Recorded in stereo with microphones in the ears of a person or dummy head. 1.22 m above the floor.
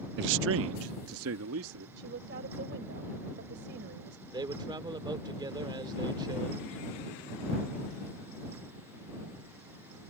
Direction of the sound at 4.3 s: 25° right (ahead or behind).